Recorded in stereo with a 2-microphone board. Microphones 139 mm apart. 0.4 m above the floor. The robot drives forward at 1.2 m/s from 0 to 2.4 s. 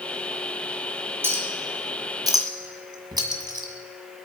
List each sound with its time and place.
1.2 s a clink: 15° right (ahead or behind), 3 m; by 3.7 s 30° right (ahead or behind), 1.7 m